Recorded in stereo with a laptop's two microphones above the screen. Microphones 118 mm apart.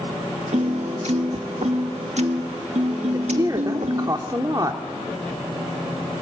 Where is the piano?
75° right (ahead or behind), 1.3 m.